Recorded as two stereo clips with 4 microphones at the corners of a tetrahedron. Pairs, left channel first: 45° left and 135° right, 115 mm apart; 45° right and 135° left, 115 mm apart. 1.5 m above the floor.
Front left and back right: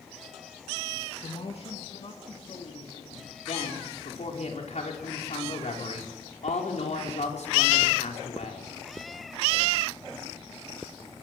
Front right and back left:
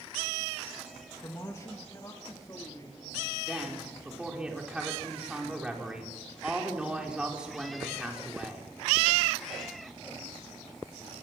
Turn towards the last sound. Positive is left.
turn(degrees=50)